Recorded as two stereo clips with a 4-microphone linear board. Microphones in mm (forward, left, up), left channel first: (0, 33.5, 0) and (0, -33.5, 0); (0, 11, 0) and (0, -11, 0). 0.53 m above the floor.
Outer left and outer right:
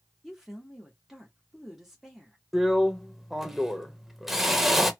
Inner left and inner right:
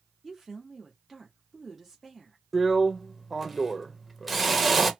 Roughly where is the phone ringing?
No phone ringing in this recording.